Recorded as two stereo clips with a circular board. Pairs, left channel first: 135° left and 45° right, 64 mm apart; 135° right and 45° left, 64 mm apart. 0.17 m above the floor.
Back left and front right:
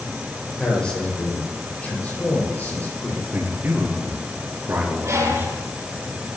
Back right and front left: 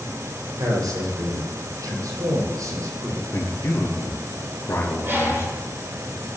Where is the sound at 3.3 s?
95° right, 3 m.